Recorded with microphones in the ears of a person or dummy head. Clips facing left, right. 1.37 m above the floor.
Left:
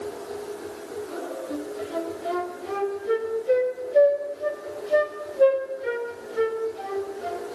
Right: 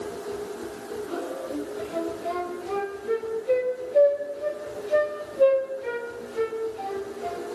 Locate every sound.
0.0 s a machine running: 55° right (ahead or behind), 8 m
1.5 s a flute: 5° left (ahead or behind), 4 m